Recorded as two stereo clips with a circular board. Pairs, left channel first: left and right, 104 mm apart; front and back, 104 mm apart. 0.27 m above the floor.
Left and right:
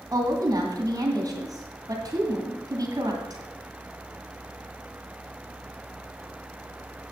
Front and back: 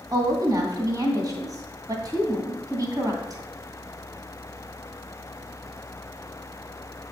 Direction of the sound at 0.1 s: 135° right.